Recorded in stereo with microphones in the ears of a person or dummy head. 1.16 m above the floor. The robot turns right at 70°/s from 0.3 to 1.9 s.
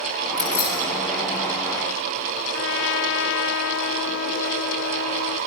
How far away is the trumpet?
About 0.5 m.